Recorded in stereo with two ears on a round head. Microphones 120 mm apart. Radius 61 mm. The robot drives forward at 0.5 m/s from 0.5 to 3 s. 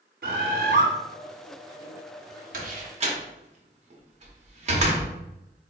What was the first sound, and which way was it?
A bird, 70° right (ahead or behind).